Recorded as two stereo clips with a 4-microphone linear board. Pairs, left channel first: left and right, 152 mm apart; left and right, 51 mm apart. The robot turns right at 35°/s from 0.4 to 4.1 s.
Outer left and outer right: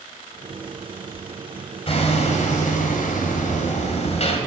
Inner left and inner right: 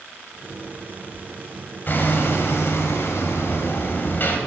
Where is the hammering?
45° left, 1.9 m; by 4.4 s 125° left, 1.9 m.